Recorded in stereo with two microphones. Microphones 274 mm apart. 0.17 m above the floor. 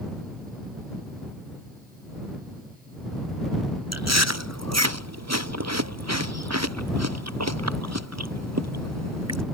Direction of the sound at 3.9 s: 70° right (ahead or behind).